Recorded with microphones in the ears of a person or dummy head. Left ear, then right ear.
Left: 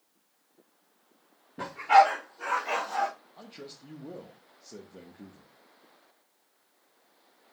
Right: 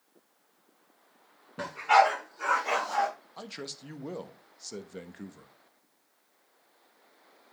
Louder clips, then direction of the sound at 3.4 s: Right 5 dB; 60° right (ahead or behind).